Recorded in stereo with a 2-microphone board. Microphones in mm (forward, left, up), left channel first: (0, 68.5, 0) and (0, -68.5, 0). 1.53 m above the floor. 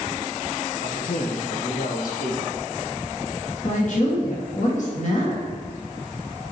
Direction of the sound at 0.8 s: 75° left (ahead or behind).